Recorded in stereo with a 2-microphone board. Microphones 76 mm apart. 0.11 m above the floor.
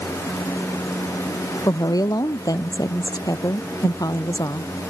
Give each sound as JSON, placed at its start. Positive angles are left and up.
{"t": 1.7, "sound": "a woman speaking", "side_deg": 55}